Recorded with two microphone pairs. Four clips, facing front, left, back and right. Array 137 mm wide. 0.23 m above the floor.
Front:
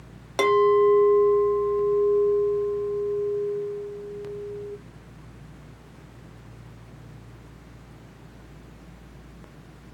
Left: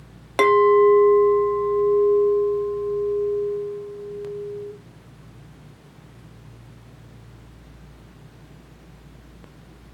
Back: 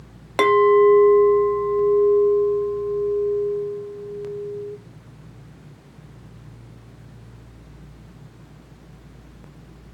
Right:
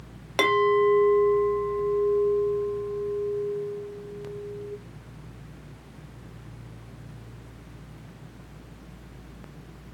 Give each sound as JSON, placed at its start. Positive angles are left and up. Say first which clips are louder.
{"t": 0.4, "sound": "a clink", "louder": "left 7 dB, back 4 dB", "azimuth_deg": 140, "distance_m": 0.5}